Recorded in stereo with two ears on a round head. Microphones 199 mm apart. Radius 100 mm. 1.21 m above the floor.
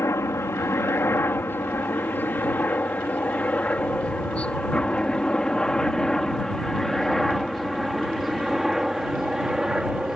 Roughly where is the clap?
No clap in this recording.